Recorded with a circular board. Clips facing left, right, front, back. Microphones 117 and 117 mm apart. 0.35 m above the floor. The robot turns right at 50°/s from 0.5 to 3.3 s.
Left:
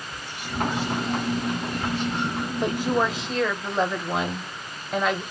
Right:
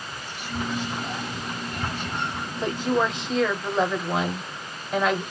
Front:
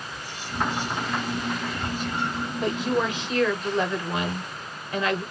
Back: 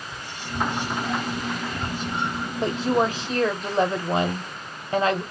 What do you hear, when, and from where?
0.1 s whispering: 160° left, 2 m; by 2.5 s 100° right, 2 m
2.6 s a woman speaking: 150° left, 1.1 m; by 5.2 s 175° right, 1.1 m